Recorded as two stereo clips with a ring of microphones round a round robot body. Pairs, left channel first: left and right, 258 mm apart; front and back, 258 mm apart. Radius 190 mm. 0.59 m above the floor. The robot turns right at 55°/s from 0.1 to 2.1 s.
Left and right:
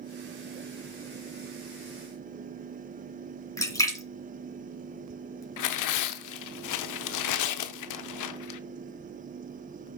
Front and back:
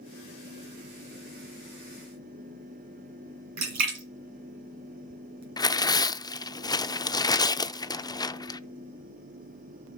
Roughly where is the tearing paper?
Left.